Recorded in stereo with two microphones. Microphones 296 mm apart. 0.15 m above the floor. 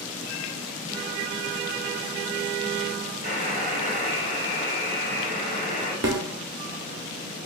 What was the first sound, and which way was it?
A buzzer, 30° right (ahead or behind).